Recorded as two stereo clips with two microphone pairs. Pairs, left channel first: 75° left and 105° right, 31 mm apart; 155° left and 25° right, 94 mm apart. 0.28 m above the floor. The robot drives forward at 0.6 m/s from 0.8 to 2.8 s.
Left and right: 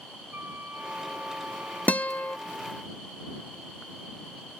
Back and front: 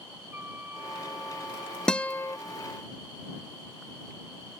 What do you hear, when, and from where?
0.3 s a flute: 95° right; by 2.8 s 105° right
1.9 s a guitar: 75° left; by 2.4 s 100° left